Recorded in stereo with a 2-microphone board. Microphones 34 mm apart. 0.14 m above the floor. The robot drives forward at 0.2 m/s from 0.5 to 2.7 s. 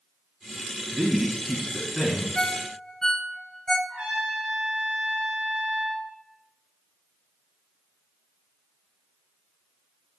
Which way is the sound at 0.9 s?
10° right (ahead or behind).